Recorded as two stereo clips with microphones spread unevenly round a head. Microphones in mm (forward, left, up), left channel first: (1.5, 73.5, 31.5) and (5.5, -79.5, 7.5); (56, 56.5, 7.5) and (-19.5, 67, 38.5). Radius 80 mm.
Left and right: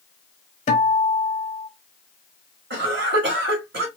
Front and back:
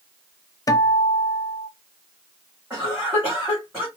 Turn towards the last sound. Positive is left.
turn(degrees=-115)